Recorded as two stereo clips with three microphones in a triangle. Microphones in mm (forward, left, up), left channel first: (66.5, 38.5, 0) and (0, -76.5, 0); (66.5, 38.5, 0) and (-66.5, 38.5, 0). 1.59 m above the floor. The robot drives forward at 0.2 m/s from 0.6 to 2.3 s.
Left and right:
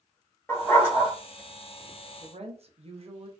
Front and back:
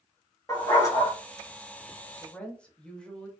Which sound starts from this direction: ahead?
A dog barking, at 0.5 s.